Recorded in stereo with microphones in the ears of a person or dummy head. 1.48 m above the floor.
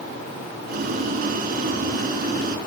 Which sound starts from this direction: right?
Boiling, at 0.7 s.